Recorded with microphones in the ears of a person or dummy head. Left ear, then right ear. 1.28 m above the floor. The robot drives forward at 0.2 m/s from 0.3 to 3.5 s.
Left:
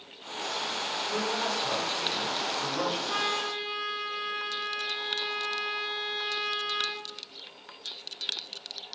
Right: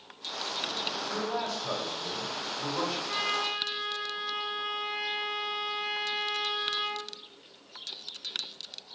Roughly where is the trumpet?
Left.